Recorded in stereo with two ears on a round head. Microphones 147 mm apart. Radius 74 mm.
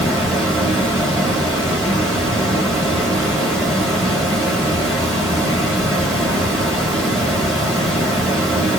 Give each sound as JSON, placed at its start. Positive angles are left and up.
{"t": 0.0, "sound": "running water", "side_deg": 0, "distance_m": 1.2}